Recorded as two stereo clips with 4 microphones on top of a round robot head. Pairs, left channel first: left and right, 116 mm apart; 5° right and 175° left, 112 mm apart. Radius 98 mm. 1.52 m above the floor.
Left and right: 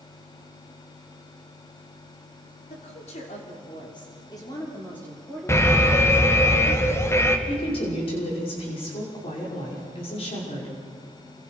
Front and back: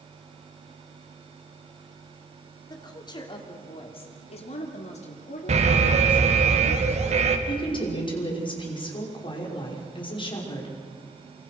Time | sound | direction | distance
2.7 | a woman speaking | 50° left | 3.5 m
5.5 | an alarm | 155° left | 2.5 m
7.5 | a woman speaking | 40° left | 5.5 m